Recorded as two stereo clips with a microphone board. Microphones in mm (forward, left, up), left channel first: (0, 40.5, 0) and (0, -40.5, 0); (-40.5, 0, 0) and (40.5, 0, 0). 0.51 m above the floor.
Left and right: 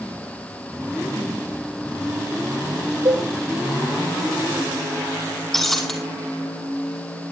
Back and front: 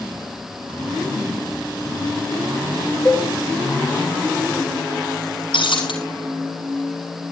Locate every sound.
3.0 s a cowbell: 105° right, 7.5 m
5.5 s breaking glass: 175° left, 3 m